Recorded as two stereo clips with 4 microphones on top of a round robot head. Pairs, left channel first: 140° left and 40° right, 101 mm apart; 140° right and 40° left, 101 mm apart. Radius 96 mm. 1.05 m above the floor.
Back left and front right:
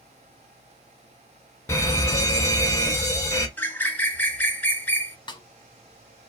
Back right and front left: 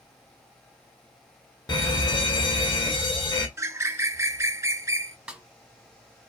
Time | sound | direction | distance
1.7 | a fire alarm | 165° right | 1.5 m
3.6 | a bird | 80° left | 0.7 m
5.3 | a snare drum | 120° left | 0.8 m